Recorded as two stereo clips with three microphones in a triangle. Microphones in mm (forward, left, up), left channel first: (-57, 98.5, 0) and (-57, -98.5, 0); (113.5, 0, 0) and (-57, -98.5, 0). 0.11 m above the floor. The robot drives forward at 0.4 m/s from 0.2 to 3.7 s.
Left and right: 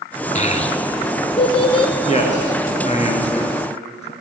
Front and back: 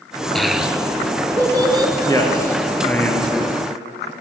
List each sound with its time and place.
0.3 s a child speaking: 115° left, 1.0 m; by 1.9 s 150° left, 1.3 m
2.0 s a man speaking: 85° left, 1.9 m; by 4.1 s 120° left, 2.0 m